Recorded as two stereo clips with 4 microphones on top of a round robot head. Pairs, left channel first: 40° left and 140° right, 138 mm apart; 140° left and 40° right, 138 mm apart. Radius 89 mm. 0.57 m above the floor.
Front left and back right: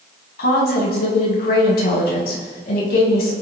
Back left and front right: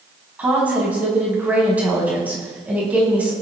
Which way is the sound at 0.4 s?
40° left.